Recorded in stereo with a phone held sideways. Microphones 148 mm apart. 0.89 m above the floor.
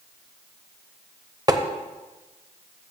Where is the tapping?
25° right (ahead or behind), 0.8 m.